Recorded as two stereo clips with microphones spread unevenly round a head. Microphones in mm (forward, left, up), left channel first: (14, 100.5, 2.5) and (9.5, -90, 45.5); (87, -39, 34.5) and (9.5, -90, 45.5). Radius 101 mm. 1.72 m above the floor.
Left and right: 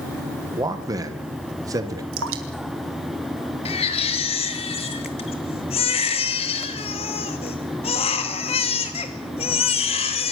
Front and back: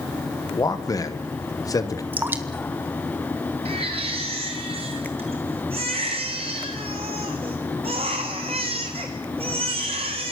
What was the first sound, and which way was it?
A man speaking, 20° right.